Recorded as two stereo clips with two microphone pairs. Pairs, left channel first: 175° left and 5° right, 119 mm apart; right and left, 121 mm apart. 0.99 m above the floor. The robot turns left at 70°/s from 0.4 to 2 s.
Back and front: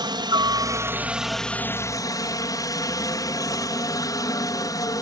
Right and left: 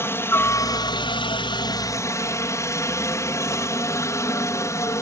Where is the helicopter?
30° right; by 5.0 s 145° right.